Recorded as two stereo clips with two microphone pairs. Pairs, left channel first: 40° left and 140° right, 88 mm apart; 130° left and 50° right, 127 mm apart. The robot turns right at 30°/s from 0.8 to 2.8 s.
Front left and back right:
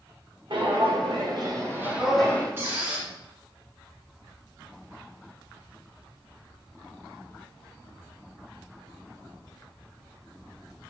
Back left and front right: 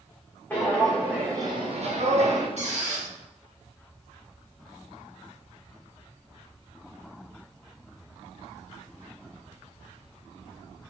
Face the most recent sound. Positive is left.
turn(degrees=-70)